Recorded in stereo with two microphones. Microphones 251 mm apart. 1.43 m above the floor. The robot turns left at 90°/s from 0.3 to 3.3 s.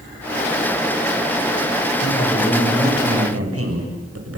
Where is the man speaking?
50° left, 6.5 m; by 4.4 s 65° right, 6.5 m.